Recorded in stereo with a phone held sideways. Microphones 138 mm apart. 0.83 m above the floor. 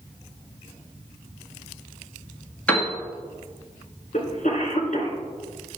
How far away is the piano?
About 1.5 m.